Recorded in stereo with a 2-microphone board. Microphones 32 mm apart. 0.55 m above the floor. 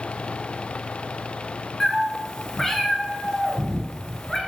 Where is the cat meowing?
15° left (ahead or behind), 0.6 m.